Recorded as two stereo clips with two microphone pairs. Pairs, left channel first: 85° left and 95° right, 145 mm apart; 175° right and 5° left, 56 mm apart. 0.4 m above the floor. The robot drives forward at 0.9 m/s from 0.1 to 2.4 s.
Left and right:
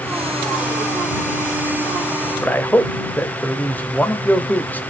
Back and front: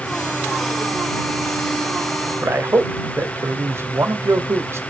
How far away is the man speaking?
About 1.8 m.